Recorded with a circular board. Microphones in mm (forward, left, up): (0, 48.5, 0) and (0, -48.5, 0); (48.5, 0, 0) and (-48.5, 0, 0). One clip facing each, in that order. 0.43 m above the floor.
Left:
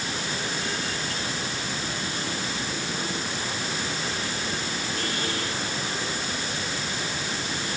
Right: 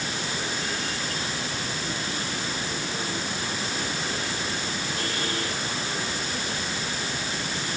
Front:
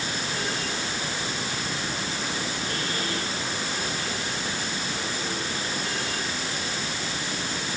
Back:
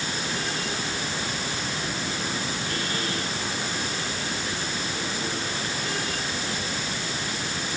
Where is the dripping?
No dripping in this recording.